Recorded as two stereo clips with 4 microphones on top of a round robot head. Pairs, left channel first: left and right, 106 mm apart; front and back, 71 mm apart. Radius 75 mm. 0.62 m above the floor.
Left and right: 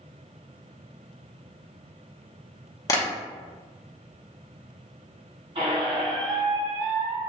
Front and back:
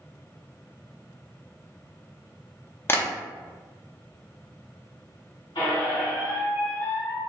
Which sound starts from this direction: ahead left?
Tapping, at 2.9 s.